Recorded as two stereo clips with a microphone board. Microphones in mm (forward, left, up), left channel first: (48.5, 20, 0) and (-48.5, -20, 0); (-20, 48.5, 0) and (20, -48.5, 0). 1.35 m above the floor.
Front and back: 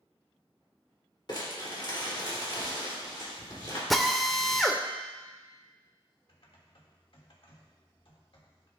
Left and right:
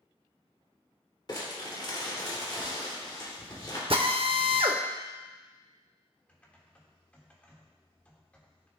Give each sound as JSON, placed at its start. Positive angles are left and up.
{"t": 1.3, "sound": "crumpling", "azimuth_deg": 65, "distance_m": 2.5}
{"t": 3.9, "sound": "a drill", "azimuth_deg": -65, "distance_m": 0.7}
{"t": 6.3, "sound": "typing on a keyboard", "azimuth_deg": 40, "distance_m": 1.5}